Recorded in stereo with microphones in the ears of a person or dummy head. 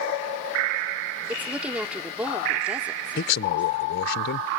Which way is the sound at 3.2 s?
60° left (ahead or behind).